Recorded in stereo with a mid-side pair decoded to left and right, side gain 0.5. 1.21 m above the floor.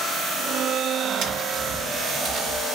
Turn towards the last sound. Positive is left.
turn(degrees=-70)